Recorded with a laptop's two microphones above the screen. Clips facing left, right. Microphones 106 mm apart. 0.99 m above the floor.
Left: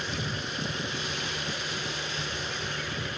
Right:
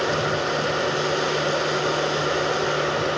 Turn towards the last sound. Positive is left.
turn(degrees=-85)